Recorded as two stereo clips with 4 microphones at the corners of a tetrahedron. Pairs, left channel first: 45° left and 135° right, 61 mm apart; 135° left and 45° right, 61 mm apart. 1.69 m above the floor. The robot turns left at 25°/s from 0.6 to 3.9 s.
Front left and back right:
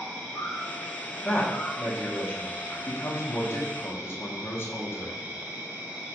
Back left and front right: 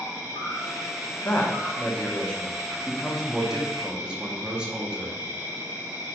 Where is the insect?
5° right, 1.7 m; by 6.2 s 90° right, 1.7 m.